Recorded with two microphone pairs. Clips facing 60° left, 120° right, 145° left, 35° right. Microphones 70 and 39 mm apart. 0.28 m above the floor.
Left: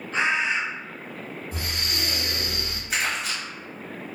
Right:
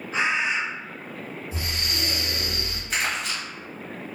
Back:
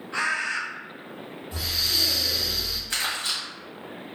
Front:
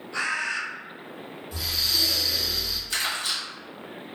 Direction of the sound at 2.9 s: 135° left.